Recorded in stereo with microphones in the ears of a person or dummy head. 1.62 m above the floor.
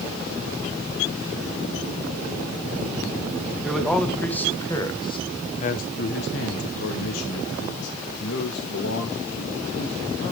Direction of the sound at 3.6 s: 5° left (ahead or behind).